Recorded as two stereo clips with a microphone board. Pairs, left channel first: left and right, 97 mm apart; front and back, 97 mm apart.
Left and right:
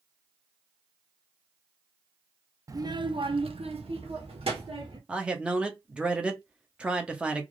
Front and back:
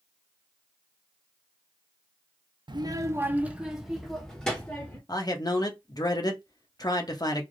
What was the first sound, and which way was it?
A child speaking, 145° right.